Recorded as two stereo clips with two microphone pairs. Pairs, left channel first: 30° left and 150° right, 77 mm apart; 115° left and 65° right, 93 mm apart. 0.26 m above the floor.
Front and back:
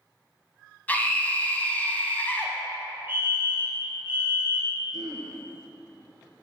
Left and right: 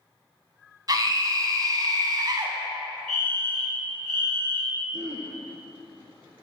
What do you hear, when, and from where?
0.9 s a scream: 35° right, 1.4 m
3.1 s a fire alarm: 165° right, 2 m
4.9 s throat clearing: 100° right, 1.7 m